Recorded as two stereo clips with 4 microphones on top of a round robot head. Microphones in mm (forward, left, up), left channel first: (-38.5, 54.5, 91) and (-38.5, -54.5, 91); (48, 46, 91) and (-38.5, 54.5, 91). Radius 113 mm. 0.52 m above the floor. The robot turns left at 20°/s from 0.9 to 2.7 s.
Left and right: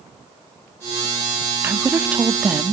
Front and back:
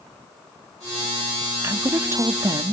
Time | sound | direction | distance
1.6 | a woman speaking | 150° right | 1.0 m